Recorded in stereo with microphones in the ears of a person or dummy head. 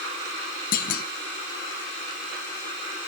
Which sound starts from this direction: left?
A clunk, at 0.7 s.